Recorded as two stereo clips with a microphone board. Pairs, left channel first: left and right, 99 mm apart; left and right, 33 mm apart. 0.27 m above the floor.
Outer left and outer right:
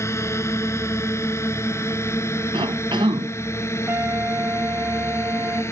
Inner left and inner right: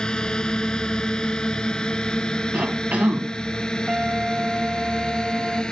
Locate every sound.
0.0 s a drone: 25° left (ahead or behind)
2.5 s a cough: 55° right (ahead or behind)
3.9 s a trumpet: 25° right (ahead or behind)